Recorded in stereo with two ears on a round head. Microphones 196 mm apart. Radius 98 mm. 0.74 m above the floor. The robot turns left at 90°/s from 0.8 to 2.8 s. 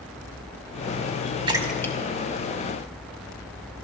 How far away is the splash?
About 2 m.